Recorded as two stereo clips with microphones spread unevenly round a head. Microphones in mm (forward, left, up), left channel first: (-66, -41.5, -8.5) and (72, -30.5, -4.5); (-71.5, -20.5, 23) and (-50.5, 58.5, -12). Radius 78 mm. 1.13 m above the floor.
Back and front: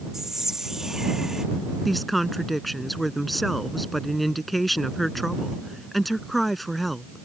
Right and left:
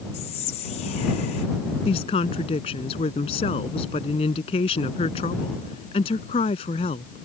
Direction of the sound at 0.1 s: 85° right.